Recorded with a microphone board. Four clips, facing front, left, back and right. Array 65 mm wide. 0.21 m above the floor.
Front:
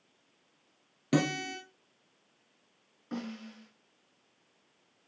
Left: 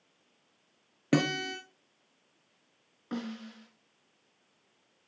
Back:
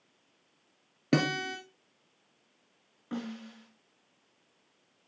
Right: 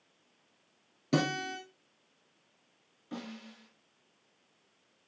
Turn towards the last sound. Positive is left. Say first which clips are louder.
# left 5 dB, back 1 dB
turn(degrees=105)